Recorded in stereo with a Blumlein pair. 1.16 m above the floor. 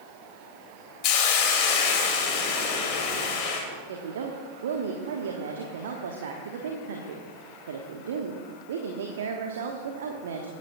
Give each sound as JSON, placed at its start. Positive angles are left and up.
{"t": 1.0, "sound": "a hiss", "azimuth_deg": 40, "distance_m": 2.5}
{"t": 3.9, "sound": "a woman speaking", "azimuth_deg": -60, "distance_m": 1.2}